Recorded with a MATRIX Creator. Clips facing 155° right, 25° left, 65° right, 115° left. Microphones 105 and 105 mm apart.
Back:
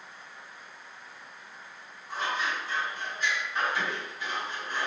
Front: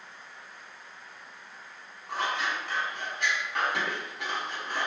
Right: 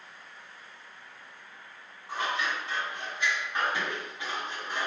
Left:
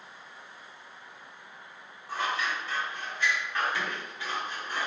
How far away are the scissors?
About 0.8 m.